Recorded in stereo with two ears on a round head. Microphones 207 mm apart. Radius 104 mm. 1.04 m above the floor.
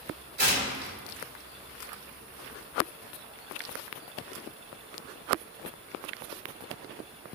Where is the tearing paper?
40° right (ahead or behind), 3 m.